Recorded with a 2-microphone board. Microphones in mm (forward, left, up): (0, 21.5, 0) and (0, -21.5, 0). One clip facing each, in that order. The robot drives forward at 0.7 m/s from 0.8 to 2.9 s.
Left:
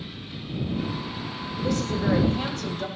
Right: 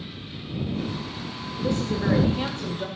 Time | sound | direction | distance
1.6 | a woman speaking | 30° right (ahead or behind) | 3 m